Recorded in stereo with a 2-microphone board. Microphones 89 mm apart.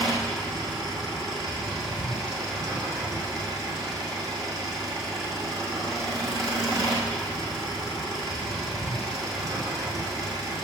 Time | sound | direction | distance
0.0 | an engine running | 40° right (ahead or behind) | 3.5 m